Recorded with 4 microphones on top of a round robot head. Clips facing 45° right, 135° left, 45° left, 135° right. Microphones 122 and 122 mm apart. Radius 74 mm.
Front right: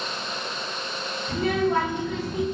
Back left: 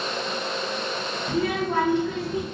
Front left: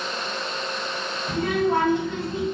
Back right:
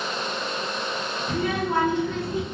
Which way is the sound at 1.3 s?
150° left.